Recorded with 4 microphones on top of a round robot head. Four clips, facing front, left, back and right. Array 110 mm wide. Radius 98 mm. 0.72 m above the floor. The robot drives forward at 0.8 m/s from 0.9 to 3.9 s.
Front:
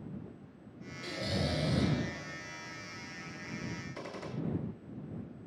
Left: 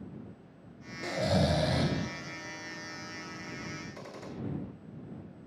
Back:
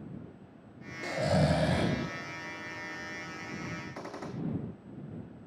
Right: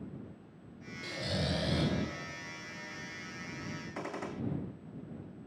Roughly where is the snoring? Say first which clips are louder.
Left 8 dB, back 8 dB; behind left.